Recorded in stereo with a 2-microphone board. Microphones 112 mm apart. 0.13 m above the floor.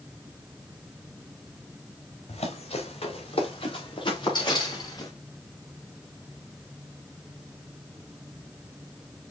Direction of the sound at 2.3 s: 65° left (ahead or behind).